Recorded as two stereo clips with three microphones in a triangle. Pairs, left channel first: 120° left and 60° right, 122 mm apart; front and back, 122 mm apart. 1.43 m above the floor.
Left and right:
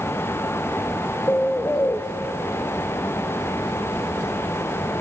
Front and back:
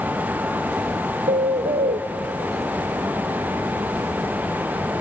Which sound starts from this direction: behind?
A bird, at 1.3 s.